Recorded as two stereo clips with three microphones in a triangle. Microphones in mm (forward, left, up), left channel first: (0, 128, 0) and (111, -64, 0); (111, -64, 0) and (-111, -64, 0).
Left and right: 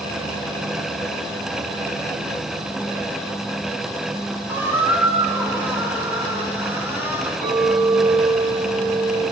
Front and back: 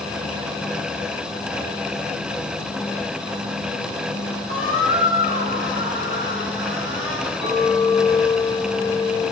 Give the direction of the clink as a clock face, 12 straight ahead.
11 o'clock.